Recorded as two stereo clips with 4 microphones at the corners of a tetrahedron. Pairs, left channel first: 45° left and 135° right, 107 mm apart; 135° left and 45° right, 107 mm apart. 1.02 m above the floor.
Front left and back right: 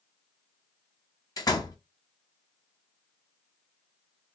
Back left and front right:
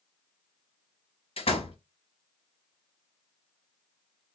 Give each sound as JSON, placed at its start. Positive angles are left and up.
{"t": 1.4, "sound": "a door slam", "azimuth_deg": 105, "distance_m": 0.9}